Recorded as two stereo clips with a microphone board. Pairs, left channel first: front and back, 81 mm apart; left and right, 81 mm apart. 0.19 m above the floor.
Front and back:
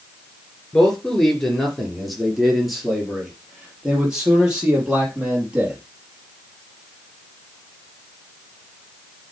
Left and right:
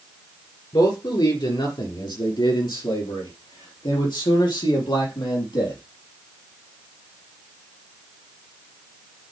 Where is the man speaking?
80° left, 3 m; by 5.8 s 100° left, 5 m.